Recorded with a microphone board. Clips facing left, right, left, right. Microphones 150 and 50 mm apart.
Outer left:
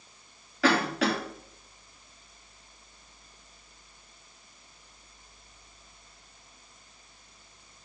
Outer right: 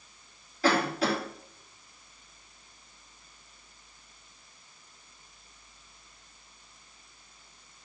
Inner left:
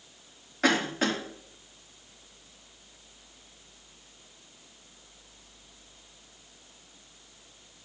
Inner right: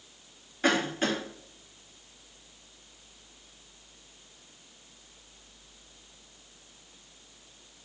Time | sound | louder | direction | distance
0.6 | a cough | outer left 1 dB, inner left 1 dB | 85° left | 3 m